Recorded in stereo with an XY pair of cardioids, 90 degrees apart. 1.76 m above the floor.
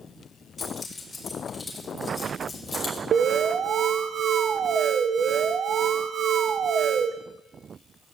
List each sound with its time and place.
0.6 s keys jangling: 35° left, 4.5 m
3.1 s an alarm: 65° right, 1.2 m